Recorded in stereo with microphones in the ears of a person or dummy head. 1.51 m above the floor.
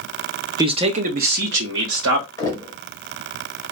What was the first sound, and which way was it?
A man speaking, 25° right (ahead or behind).